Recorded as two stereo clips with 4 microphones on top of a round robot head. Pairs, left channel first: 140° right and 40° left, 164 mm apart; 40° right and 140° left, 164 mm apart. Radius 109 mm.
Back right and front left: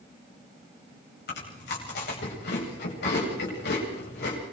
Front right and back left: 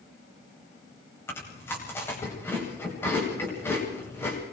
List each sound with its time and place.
1.3 s chewing: 115° right, 9 m